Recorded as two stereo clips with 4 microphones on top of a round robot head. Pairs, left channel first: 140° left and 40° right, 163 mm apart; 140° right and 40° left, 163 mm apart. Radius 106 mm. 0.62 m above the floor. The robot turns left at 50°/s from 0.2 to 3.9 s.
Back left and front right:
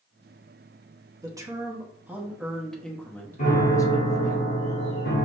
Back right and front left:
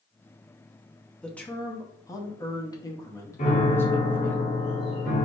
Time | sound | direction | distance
1.2 | a man speaking | 65° right | 0.9 m
3.4 | a piano | straight behind | 1.3 m